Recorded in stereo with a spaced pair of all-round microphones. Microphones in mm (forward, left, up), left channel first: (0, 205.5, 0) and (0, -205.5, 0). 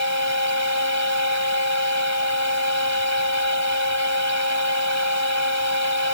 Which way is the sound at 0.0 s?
40° left (ahead or behind).